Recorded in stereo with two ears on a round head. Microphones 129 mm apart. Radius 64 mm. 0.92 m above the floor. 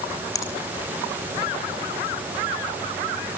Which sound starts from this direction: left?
A finger snap, at 0.3 s.